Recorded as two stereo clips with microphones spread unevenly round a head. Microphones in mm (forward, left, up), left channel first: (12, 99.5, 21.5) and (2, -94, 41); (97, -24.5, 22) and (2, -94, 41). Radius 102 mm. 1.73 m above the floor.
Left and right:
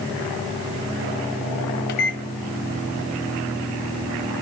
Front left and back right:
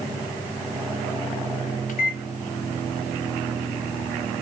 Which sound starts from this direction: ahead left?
A microwave, at 1.9 s.